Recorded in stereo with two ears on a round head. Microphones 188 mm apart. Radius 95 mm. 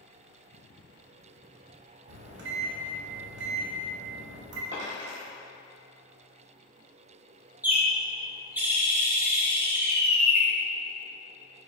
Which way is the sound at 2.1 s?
60° right (ahead or behind).